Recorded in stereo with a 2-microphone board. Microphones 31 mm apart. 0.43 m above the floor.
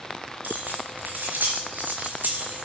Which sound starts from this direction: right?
Keys jangling, at 0.4 s.